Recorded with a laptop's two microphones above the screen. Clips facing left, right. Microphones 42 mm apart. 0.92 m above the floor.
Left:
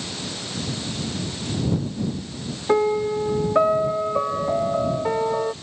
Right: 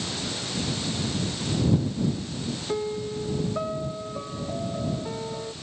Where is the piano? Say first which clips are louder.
Left 11 dB; 60° left (ahead or behind).